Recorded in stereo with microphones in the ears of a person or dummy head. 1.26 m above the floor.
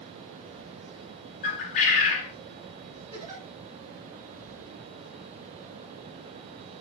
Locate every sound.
1.4 s a bird: 40° left (ahead or behind), 0.7 m
3.1 s a giggle: 30° right (ahead or behind), 1.6 m